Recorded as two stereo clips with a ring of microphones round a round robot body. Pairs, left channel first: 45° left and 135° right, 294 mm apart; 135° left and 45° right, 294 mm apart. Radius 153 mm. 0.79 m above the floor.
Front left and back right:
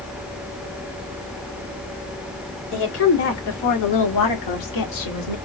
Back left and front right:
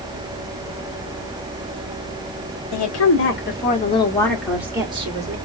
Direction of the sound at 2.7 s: 95° left.